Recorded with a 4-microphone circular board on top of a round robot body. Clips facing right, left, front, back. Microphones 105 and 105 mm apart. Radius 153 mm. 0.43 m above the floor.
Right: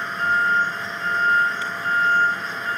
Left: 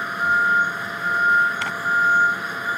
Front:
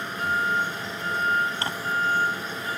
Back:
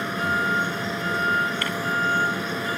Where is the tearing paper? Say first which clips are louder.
Left 2 dB, back 1 dB; 65° left.